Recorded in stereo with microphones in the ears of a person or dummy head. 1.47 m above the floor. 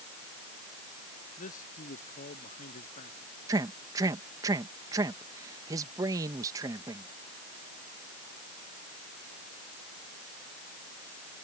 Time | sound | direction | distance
1.4 | a man speaking | 50° left (ahead or behind) | ?
3.5 | a man speaking | 30° right (ahead or behind) | ?